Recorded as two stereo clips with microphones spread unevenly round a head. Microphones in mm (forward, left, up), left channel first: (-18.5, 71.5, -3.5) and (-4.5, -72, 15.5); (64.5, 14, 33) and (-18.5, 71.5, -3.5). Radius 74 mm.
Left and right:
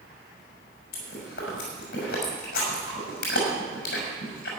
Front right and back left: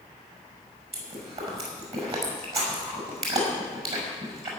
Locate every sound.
0.9 s chewing: 115° left, 6 m